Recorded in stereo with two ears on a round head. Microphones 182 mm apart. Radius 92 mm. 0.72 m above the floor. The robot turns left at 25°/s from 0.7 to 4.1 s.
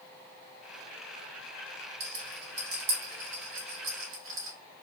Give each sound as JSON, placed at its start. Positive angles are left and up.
{"t": 2.0, "sound": "a rattle", "side_deg": -35, "distance_m": 1.4}